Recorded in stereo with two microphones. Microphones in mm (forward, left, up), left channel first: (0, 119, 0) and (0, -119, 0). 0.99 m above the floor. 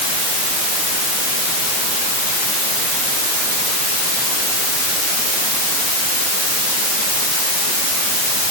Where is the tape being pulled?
No tape being pulled in this recording.